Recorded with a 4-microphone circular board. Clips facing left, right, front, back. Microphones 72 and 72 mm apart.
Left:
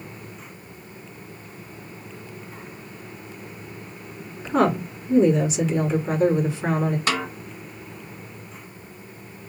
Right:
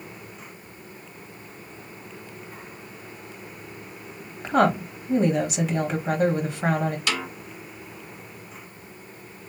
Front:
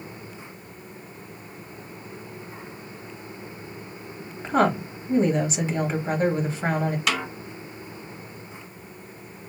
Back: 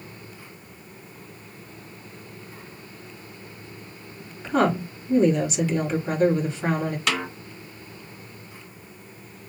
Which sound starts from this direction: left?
A snare drum, at 7.1 s.